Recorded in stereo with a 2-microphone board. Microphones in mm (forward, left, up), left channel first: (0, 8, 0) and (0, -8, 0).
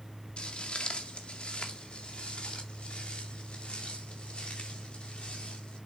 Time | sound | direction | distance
0.4 | footsteps | 75° left (ahead or behind) | 1.8 m